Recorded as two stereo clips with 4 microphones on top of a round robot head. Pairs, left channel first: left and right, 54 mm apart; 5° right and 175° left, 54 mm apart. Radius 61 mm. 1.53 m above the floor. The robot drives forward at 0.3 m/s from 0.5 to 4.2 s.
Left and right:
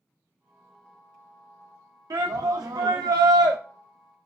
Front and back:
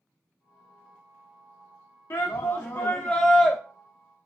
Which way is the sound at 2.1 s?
60° right.